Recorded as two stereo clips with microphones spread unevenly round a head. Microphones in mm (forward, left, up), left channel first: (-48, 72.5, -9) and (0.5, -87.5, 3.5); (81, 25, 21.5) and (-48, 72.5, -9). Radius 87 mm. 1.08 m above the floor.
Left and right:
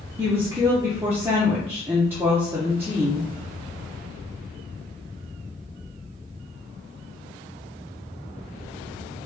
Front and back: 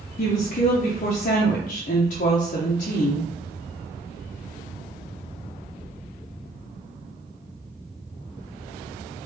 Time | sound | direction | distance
0.2 | a woman speaking | 5° left | 0.6 m